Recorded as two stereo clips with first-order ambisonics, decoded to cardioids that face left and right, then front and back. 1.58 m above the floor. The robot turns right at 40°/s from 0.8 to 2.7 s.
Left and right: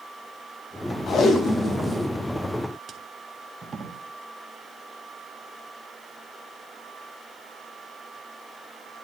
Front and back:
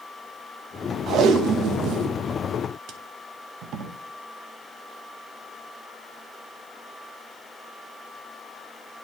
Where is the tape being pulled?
140° left, 1.0 m; by 3.9 s 155° right, 1.0 m.